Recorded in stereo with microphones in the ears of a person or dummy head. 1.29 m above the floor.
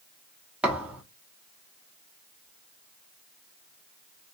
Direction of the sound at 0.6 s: 5° right (ahead or behind).